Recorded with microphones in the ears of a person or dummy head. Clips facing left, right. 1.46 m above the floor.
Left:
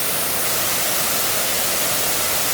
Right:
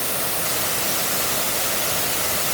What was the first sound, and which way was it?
Only background noise.